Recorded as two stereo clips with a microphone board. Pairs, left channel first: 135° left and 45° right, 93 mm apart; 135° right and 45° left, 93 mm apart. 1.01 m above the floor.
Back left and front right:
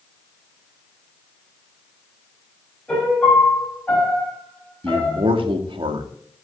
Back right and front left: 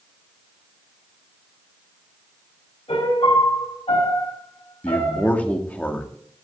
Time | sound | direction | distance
2.9 | a piano | 145° right | 4.5 m
4.8 | a man speaking | 60° right | 2 m